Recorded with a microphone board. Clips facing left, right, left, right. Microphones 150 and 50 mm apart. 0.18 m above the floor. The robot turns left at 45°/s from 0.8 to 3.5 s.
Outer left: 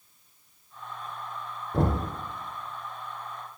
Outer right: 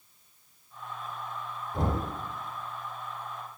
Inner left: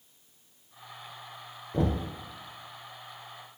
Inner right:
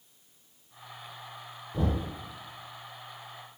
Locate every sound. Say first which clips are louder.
1.7 s knocking: outer left 4 dB, inner left 2 dB; 65° left (ahead or behind), 1.9 m